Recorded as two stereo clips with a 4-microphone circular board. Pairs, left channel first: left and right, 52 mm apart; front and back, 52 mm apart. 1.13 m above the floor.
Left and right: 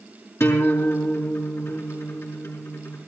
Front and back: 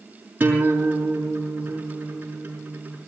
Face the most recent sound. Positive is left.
turn(degrees=125)